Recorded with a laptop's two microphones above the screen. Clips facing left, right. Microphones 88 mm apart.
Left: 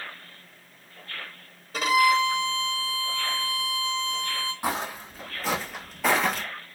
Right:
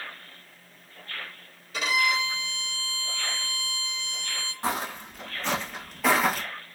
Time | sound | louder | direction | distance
1.7 | a violin | left 6 dB | 35° left (ahead or behind) | 1.1 m
4.6 | footsteps | right 2 dB | 10° left (ahead or behind) | 1.6 m